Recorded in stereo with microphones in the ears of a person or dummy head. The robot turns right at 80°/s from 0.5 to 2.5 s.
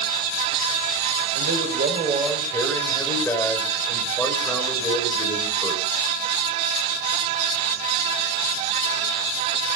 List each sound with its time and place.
1.4 s a man speaking: 80° right, 6 m; by 5.8 s 15° left, 6 m